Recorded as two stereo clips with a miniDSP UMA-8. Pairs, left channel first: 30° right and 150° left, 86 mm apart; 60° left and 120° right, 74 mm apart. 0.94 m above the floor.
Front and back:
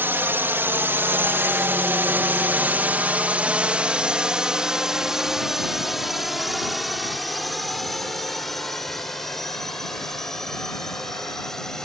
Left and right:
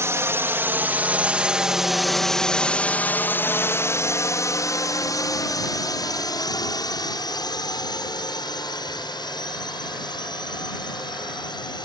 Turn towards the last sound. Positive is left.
turn(degrees=55)